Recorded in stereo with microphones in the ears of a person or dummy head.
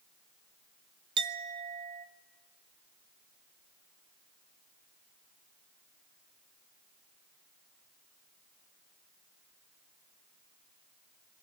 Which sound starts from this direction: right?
A clink, at 1.2 s.